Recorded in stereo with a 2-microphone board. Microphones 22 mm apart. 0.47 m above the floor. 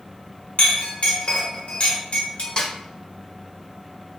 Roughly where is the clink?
Left.